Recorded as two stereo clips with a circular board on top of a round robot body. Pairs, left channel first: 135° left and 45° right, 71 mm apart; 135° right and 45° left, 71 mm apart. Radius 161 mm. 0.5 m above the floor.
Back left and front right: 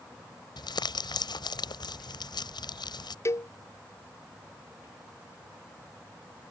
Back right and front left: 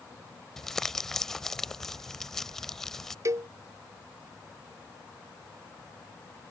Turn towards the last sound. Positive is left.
turn(degrees=90)